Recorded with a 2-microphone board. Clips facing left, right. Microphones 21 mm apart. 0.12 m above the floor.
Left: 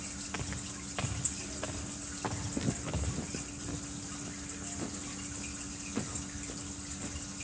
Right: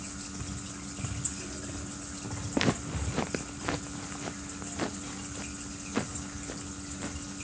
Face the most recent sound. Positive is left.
turn(degrees=-30)  # may be behind; listen again after turning